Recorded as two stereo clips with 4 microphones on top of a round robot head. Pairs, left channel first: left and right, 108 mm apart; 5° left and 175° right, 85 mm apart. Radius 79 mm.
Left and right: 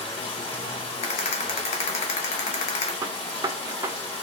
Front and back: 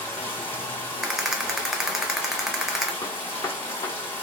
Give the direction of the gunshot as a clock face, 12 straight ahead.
1 o'clock.